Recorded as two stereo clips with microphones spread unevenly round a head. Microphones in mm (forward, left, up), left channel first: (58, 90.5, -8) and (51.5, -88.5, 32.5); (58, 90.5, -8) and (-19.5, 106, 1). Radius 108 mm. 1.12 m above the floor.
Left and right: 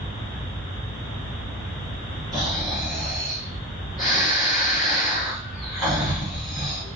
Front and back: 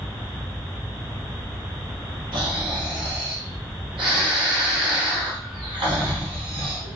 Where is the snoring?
175° left, 1.2 m.